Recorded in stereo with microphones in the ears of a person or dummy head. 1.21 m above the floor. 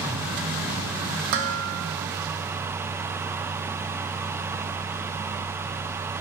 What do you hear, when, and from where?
1.3 s dishes clattering: 50° right (ahead or behind), 0.7 m